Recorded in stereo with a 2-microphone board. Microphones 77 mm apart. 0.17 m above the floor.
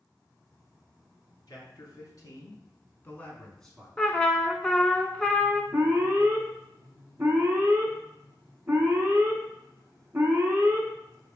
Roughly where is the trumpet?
Centre.